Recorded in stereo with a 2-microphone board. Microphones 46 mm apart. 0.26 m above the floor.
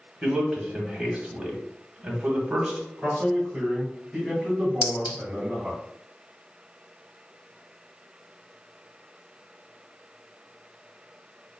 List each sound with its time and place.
0.2 s a man speaking: 20° right (ahead or behind), 1.4 m
3.0 s a man speaking: 20° right (ahead or behind), 2 m
4.8 s a clink: 25° right (ahead or behind), 1.0 m